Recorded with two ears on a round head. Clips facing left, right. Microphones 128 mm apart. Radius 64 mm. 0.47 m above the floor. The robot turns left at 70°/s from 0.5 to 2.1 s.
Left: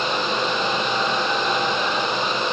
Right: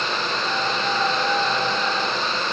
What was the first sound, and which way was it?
Only background noise.